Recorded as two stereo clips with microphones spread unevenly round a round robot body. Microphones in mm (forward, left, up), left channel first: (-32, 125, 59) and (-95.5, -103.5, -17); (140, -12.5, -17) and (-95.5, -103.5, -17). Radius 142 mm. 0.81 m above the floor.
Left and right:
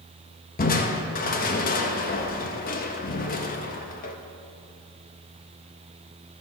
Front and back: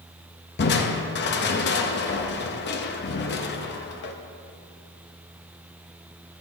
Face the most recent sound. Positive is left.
turn(degrees=10)